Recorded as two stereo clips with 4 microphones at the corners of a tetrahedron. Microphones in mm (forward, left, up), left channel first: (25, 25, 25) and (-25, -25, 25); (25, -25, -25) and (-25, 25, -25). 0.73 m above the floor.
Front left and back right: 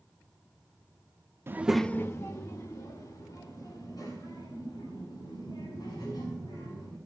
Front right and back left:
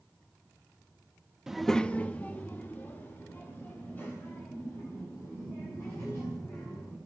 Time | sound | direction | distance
1.5 | a child speaking | 150° right | 0.7 m